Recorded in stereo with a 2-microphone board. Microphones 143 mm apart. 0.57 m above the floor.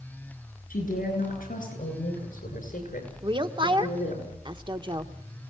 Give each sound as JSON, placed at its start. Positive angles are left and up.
{"t": 0.7, "sound": "a woman speaking", "side_deg": 75, "distance_m": 8.5}
{"t": 3.2, "sound": "a woman speaking", "side_deg": -35, "distance_m": 1.2}